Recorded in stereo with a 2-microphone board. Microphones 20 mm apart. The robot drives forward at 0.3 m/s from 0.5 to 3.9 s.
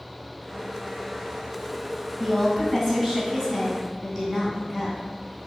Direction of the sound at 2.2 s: 15° left (ahead or behind).